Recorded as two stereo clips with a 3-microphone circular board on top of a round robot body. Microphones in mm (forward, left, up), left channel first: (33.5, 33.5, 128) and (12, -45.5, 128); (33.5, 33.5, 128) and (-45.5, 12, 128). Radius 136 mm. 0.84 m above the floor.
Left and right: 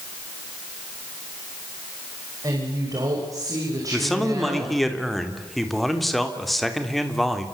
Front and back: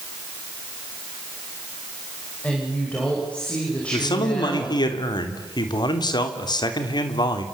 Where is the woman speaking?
60° right, 6 m.